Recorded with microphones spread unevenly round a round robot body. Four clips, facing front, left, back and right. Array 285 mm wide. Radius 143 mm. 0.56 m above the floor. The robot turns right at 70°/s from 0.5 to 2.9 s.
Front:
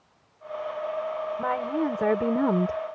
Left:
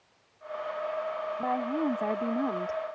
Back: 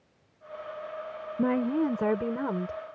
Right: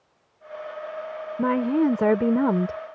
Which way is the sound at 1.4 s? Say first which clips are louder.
Right 9 dB, back 3 dB; 135° right.